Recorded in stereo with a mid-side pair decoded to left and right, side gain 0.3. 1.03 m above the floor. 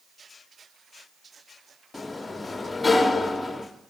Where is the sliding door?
40° left, 1.0 m.